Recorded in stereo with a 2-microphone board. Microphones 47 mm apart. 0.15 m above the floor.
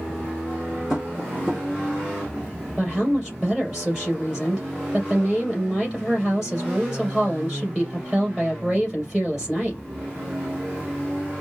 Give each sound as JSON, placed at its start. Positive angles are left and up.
{"t": 0.9, "sound": "tapping", "side_deg": -5, "distance_m": 2.5}
{"t": 2.8, "sound": "a woman speaking", "side_deg": -5, "distance_m": 3.0}